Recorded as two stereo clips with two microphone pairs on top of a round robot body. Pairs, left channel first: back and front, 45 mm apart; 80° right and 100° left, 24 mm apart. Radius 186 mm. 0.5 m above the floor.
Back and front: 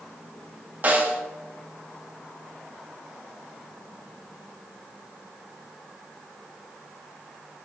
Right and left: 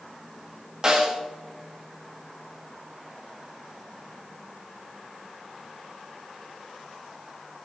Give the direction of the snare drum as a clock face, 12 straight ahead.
11 o'clock.